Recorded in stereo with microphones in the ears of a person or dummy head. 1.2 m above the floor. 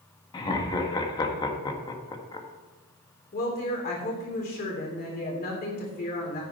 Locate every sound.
0.3 s laughter: 20° left (ahead or behind), 1.7 m
3.3 s a woman speaking: 45° left (ahead or behind), 3 m